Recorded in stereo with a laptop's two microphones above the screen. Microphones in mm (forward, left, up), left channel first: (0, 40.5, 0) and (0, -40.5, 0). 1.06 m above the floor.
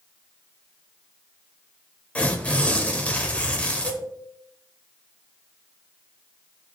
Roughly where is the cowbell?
Centre.